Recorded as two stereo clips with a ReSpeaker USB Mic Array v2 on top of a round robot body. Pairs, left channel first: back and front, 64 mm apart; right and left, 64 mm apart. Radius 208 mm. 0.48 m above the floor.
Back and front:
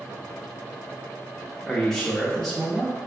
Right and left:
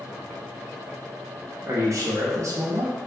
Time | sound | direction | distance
1.7 | a man speaking | 90° left | 0.8 m